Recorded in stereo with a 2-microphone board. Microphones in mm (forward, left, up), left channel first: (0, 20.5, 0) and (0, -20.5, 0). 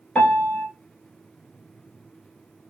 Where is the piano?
25° left (ahead or behind), 2.5 m.